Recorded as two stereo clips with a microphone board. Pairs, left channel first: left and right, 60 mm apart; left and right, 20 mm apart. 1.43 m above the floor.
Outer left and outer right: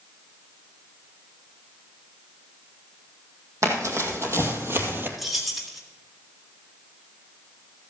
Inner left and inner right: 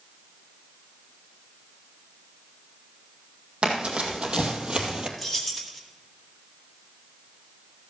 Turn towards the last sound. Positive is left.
turn(degrees=0)  # may be behind; listen again after turning